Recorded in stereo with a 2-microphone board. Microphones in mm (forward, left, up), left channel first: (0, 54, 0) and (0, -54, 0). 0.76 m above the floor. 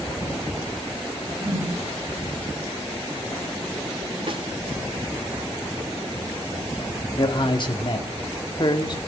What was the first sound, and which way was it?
A whoosh, 25° right (ahead or behind).